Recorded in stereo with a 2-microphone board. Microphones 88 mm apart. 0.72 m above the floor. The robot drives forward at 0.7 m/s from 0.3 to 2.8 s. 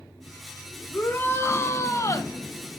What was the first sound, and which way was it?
A shout, 25° left (ahead or behind).